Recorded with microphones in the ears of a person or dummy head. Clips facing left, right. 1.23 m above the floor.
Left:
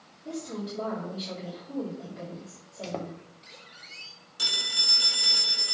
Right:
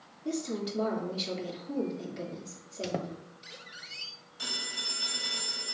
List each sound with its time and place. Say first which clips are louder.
0.2 s a woman speaking: right 2 dB; 40° right (ahead or behind), 2.5 m
2.8 s a squeak: right 1 dB; 15° right (ahead or behind), 0.6 m
4.4 s a phone ringing: left 1 dB; 85° left, 2.5 m